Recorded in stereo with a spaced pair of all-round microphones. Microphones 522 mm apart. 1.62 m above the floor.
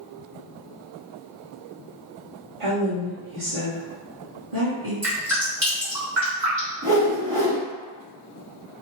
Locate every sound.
2.6 s a woman speaking: 65° right (ahead or behind), 0.8 m
5.0 s dripping: 30° right (ahead or behind), 1.8 m
6.8 s a whoosh: 35° right (ahead or behind), 1.7 m